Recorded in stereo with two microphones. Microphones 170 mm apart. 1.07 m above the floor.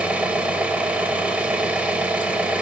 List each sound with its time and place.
0.0 s an engine running: 5° right (ahead or behind), 0.9 m